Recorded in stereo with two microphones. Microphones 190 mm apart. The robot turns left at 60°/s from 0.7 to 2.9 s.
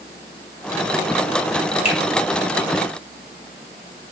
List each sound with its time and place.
1.9 s a finger snap: 30° left (ahead or behind), 1.2 m